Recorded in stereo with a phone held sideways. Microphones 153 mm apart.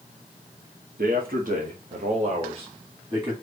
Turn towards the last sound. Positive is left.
turn(degrees=-25)  # may be behind; listen again after turning